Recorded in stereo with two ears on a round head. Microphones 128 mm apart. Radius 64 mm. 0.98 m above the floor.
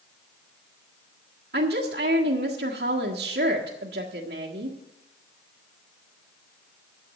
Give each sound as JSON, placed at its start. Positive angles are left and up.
{"t": 1.5, "sound": "a woman speaking", "side_deg": -75, "distance_m": 1.5}